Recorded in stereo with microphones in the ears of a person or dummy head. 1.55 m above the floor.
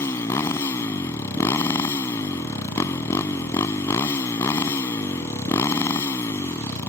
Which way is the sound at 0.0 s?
15° left (ahead or behind).